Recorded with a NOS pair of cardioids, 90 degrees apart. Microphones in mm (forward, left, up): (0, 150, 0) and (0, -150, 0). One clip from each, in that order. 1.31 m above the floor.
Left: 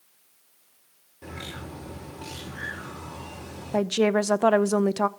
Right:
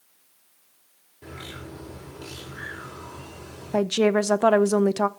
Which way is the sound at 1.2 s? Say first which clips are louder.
Left 1 dB; 25° left.